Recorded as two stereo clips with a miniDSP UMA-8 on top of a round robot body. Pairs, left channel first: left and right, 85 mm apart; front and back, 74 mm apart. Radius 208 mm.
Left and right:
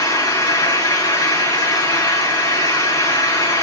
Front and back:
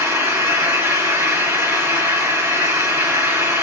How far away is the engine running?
About 5 m.